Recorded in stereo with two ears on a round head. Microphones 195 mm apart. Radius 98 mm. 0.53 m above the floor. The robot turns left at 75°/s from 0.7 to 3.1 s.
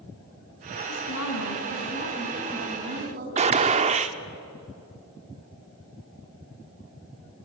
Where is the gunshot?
30° right (ahead or behind), 0.9 m.